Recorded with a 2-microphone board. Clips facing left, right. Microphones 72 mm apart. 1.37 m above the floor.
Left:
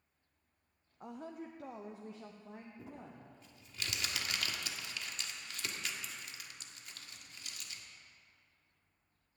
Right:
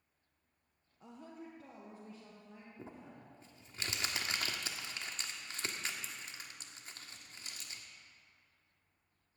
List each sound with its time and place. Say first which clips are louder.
1.0 s a woman speaking: left 5 dB; 50° left (ahead or behind), 0.5 m; by 3.4 s 70° left (ahead or behind), 1.8 m
2.8 s crumpling: left 1 dB; 30° right (ahead or behind), 1.2 m